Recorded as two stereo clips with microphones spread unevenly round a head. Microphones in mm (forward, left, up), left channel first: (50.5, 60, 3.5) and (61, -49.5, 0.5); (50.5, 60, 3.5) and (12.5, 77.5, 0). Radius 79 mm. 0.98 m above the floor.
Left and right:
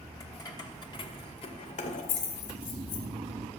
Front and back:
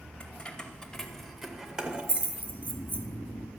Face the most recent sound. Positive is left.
turn(degrees=-45)